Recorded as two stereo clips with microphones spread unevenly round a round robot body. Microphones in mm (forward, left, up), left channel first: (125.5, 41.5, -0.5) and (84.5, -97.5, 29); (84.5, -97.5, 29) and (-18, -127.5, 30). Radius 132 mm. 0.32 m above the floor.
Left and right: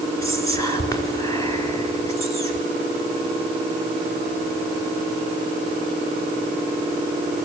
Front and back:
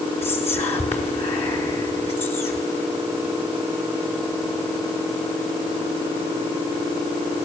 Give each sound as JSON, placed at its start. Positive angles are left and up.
{"t": 0.2, "sound": "whispering", "azimuth_deg": 5, "distance_m": 5.0}